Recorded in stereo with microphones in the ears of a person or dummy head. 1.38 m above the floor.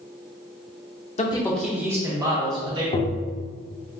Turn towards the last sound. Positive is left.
turn(degrees=35)  # may be behind; listen again after turning